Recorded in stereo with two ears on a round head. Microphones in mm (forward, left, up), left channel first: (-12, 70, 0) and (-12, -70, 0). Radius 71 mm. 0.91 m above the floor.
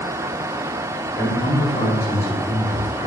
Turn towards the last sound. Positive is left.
turn(degrees=55)  # may be behind; listen again after turning